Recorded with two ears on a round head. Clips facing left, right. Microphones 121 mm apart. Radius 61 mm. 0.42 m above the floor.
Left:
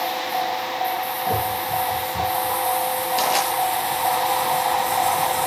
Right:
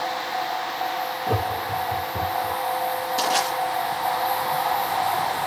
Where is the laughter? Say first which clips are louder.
Left 2 dB; 5° right (ahead or behind), 3 m; by 2.6 s 10° right (ahead or behind), 3.5 m.